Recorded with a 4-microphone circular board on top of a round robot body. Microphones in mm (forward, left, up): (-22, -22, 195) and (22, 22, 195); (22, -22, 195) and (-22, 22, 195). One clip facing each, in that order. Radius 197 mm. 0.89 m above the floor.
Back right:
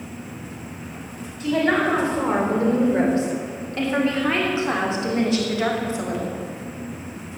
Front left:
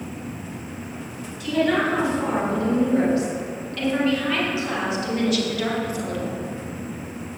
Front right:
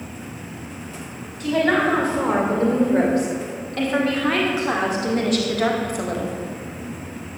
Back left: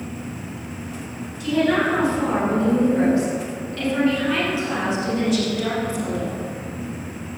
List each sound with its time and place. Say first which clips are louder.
1.4 s a woman speaking: back right 1 dB, front right 1 dB; 85° right, 6.5 m; by 6.4 s 70° right, 3 m